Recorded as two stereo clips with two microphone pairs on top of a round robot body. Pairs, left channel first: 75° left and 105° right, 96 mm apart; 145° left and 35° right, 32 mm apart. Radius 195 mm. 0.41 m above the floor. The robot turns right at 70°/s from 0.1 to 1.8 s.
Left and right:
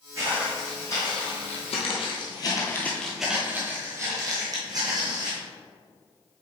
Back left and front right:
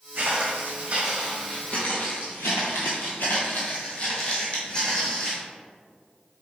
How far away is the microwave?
No microwave in this recording.